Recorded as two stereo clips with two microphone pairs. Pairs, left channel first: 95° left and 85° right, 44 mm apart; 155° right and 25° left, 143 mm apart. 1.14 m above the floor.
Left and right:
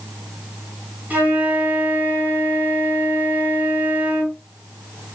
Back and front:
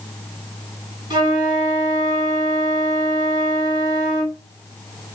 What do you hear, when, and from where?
1.1 s a flute: 35° right, 3.5 m